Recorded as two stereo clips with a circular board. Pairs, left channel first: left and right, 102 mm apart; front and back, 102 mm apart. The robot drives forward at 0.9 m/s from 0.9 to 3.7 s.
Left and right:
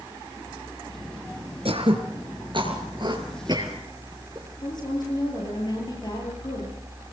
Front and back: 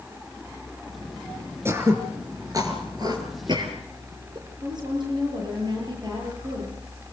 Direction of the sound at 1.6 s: 115° right.